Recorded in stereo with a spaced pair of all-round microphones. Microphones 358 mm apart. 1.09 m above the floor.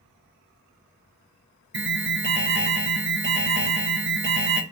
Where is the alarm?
35° right (ahead or behind), 0.6 m.